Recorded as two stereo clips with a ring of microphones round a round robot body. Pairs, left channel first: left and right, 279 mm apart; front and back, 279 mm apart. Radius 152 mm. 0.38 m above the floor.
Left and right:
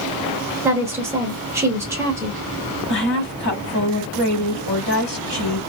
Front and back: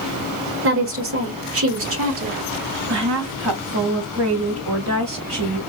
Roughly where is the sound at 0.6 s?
Behind.